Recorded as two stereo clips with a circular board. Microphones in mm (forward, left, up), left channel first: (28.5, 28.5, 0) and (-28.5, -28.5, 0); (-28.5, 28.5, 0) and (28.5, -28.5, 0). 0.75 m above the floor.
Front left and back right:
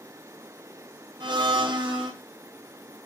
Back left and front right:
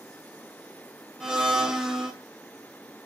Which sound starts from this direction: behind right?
A blender, at 1.2 s.